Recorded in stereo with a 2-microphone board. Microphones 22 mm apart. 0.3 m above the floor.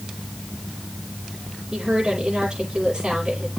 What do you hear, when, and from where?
1.7 s a woman speaking: 30° right (ahead or behind), 7.5 m